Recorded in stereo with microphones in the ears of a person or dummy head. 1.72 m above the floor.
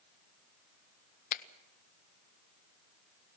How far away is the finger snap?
About 0.8 m.